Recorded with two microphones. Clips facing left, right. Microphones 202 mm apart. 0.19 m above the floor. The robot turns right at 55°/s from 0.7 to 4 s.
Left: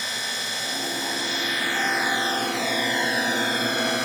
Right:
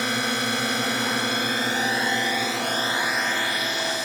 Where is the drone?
100° right; by 4.1 s 80° left.